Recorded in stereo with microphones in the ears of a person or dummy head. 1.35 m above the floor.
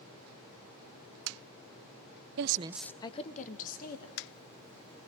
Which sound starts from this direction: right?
A woman speaking, at 2.4 s.